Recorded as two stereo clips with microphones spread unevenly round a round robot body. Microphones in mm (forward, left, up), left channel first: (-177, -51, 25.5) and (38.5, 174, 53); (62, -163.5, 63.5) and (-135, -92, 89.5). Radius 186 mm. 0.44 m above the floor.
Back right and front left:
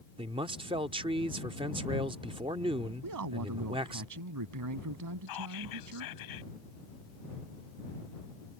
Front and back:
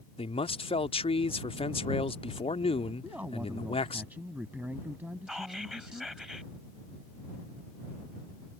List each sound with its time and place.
0.2 s a man speaking: 25° right
3.0 s a man speaking: 75° left
5.3 s whispering: 110° right